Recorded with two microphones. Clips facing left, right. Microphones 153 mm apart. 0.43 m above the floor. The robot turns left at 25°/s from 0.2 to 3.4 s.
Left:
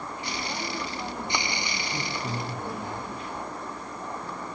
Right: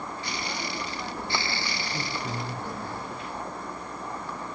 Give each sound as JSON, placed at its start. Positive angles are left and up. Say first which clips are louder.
{"t": 1.9, "sound": "a man speaking", "louder": "left 1 dB", "azimuth_deg": 140, "distance_m": 5.0}